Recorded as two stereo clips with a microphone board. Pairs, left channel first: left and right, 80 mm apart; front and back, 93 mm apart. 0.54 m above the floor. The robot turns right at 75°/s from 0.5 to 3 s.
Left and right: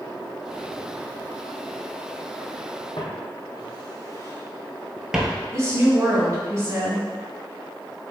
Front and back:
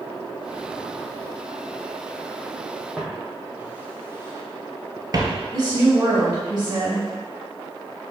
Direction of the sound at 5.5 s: 135° right.